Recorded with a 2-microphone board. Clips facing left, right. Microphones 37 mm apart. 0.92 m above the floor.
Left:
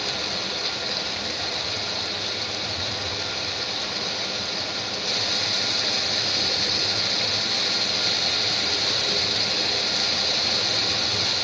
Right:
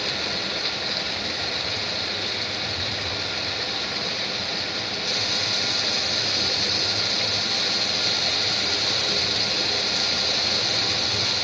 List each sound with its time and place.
0.0 s running water: 20° right (ahead or behind), 3.5 m